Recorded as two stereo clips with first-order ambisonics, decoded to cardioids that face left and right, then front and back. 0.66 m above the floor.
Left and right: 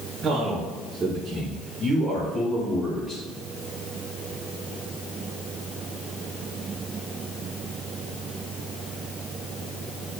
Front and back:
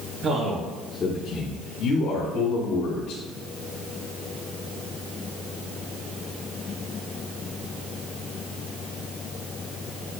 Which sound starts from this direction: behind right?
A man speaking, at 0.2 s.